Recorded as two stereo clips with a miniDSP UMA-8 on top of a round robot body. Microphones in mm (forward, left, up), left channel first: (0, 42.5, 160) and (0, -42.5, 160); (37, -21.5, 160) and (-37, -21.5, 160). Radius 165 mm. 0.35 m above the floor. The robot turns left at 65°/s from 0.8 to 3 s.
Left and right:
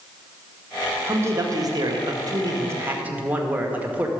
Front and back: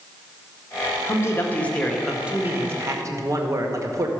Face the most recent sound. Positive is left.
turn(degrees=-155)